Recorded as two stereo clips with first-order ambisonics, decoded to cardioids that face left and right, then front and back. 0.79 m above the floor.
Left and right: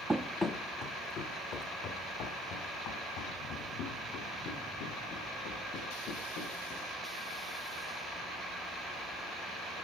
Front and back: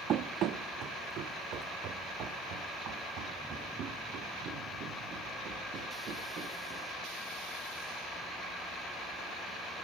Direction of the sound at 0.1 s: 170° right.